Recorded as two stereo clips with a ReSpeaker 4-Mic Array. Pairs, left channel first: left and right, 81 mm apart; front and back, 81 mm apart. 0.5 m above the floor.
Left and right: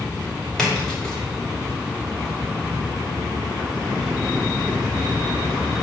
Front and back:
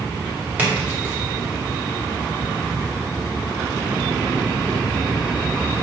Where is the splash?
160° left, 1.1 m.